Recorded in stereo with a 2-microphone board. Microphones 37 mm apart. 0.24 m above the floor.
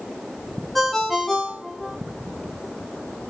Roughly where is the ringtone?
Centre.